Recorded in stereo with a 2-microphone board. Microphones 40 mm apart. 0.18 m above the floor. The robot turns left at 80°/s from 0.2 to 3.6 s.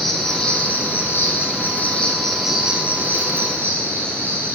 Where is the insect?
175° left, 3 m; by 4.5 s 95° right, 3 m.